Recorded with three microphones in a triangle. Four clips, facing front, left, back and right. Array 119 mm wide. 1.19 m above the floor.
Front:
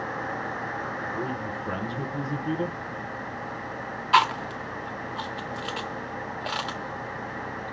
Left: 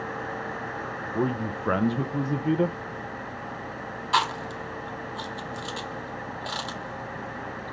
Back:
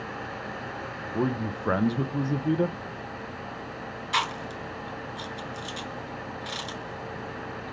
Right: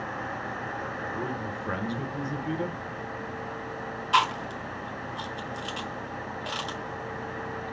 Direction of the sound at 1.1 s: 135° left.